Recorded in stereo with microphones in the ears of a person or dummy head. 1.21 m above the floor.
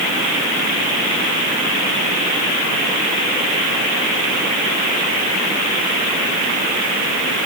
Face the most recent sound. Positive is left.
No sound to turn to.